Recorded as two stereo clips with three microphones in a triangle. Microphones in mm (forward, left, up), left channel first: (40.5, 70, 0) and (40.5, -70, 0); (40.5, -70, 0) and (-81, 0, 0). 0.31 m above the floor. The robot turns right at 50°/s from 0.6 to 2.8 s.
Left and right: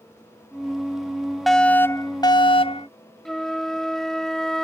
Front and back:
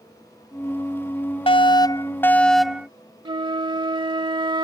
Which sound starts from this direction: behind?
A flute, at 3.2 s.